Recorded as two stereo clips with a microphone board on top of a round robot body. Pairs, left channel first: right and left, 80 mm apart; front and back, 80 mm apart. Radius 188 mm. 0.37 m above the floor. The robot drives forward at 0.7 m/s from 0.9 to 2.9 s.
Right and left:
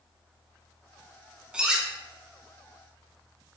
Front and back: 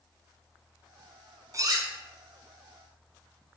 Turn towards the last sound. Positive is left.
turn(degrees=175)